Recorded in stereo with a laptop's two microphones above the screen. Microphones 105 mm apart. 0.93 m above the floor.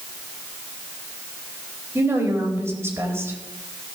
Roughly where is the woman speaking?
Right.